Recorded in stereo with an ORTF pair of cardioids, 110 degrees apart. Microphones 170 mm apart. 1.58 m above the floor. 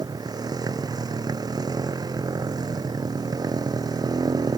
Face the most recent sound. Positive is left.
turn(degrees=-20)